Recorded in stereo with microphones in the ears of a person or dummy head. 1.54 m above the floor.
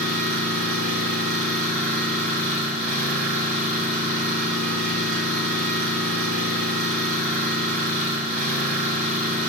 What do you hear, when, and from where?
0.0 s an engine running: 40° right (ahead or behind), 5.5 m